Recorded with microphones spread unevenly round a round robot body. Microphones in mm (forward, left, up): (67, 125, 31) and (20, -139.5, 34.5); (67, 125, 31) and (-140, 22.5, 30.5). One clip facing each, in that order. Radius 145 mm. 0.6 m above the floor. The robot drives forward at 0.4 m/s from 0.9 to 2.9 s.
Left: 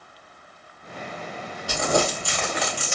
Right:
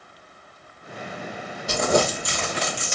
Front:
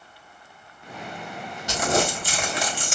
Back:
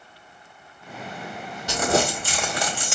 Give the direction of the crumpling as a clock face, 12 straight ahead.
6 o'clock.